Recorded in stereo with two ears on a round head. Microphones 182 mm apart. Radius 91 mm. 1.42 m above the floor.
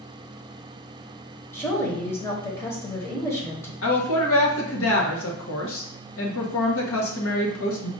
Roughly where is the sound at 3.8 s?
Left.